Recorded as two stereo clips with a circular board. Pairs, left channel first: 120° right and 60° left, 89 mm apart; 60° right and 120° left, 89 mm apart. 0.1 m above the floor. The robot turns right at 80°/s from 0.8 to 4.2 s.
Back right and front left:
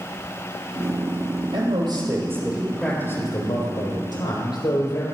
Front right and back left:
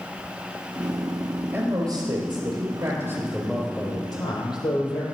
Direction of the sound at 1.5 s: 55° left.